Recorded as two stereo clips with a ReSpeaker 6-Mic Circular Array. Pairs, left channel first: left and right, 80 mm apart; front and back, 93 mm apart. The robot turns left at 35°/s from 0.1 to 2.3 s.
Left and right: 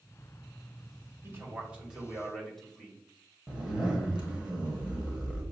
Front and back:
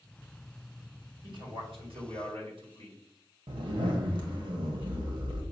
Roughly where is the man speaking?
Behind right.